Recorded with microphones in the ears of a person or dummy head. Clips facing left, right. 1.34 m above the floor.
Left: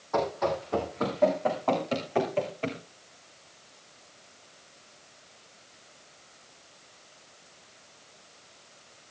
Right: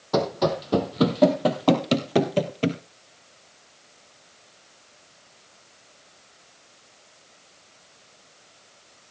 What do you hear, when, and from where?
0.1 s running footsteps: 50° right (ahead or behind), 2.5 m; by 2.8 s 35° right (ahead or behind), 1.7 m